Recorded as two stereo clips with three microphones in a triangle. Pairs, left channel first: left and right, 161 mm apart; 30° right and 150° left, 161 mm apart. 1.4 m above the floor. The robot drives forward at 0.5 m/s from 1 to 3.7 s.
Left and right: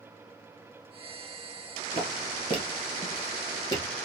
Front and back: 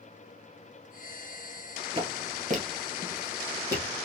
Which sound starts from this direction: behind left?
Footsteps, at 1.9 s.